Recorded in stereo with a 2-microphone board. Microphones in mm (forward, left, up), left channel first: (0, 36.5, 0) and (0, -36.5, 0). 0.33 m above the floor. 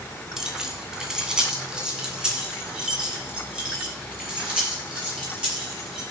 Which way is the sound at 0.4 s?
5° right (ahead or behind).